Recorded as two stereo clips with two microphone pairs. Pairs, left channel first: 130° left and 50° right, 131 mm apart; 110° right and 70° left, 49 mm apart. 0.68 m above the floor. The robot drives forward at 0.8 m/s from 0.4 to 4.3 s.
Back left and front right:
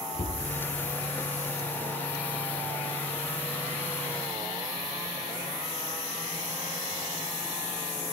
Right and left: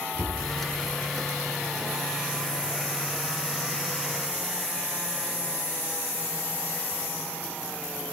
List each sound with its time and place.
0.1 s a cupboard door: 170° right, 4.5 m